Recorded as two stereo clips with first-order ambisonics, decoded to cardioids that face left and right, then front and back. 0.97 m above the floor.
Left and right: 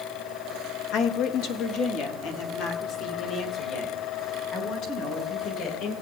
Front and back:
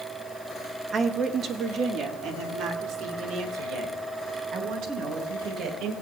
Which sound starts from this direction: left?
A woman speaking, at 0.9 s.